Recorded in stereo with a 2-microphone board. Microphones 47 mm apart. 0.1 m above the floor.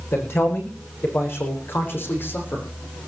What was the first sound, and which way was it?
A man speaking, 70° left (ahead or behind).